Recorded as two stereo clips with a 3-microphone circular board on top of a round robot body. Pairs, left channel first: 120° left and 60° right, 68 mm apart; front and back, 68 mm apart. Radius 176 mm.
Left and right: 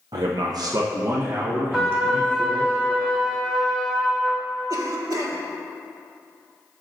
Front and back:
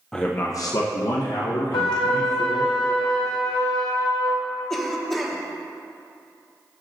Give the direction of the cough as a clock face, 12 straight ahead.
3 o'clock.